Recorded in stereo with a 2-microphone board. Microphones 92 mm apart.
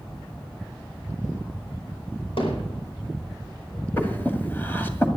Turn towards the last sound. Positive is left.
turn(degrees=20)  # may be behind; listen again after turning